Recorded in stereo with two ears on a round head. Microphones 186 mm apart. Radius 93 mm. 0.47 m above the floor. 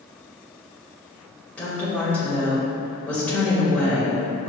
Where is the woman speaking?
5° left (ahead or behind), 1.7 m.